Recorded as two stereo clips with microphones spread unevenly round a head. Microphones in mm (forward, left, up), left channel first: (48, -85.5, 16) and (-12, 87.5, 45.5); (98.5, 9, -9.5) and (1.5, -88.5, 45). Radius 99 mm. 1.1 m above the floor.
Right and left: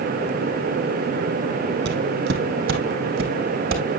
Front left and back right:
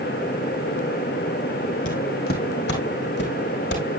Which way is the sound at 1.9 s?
105° left.